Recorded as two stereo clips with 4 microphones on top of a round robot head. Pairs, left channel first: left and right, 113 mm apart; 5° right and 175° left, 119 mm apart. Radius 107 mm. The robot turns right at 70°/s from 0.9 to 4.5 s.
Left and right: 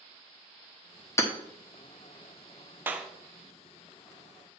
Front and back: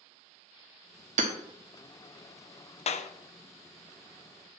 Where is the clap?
20° right, 0.6 m; by 3.1 s 5° right, 0.6 m.